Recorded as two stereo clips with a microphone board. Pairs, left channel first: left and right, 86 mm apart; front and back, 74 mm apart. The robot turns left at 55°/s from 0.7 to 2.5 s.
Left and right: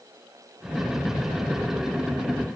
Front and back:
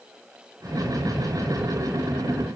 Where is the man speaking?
No man speaking in this recording.